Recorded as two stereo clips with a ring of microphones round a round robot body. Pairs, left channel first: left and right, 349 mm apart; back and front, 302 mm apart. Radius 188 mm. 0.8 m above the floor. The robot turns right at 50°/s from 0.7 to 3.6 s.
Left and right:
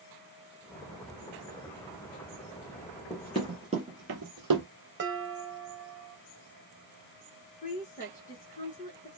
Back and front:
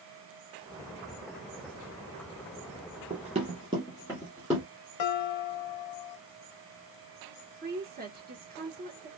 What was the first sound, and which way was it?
Running footsteps, 20° left.